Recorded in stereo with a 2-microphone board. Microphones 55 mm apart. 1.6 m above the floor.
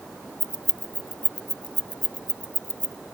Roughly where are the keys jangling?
Centre.